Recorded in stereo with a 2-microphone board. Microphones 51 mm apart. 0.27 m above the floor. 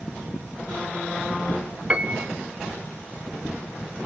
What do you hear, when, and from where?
1.9 s a piano: 25° right (ahead or behind), 0.7 m